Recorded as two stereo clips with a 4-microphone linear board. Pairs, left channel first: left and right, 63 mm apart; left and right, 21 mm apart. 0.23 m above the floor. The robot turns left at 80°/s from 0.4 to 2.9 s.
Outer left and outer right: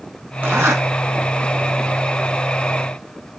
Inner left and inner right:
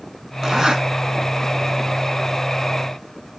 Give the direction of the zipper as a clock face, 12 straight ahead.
1 o'clock.